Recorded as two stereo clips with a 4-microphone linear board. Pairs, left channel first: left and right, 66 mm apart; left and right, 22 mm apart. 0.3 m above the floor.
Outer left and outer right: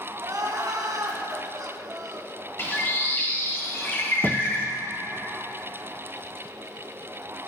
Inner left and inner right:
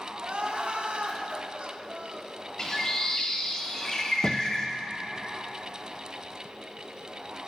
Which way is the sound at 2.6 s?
35° left (ahead or behind).